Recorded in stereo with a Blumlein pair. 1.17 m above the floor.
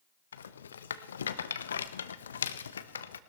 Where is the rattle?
70° left, 0.9 m.